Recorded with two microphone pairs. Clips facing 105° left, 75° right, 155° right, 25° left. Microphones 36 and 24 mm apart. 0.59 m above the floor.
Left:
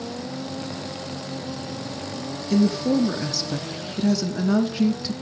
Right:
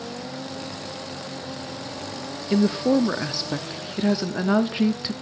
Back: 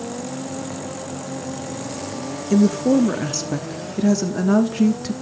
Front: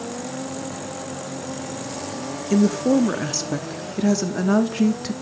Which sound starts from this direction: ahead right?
A woman speaking, at 2.5 s.